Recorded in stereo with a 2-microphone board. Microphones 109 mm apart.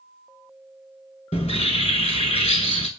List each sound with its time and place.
1.3 s a bird: 80° left, 0.6 m